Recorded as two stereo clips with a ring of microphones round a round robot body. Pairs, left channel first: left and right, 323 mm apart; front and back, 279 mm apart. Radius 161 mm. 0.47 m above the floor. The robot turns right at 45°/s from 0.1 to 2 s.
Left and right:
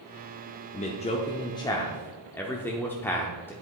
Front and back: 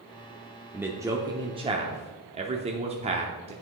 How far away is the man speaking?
About 0.7 m.